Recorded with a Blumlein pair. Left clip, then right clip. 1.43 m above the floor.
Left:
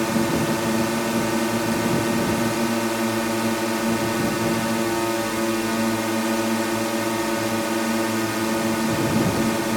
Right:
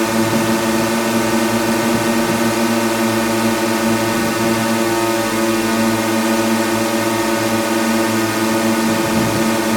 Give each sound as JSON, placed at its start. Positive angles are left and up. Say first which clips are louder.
{"t": 0.0, "sound": "a drone", "louder": "right 6 dB", "azimuth_deg": -20}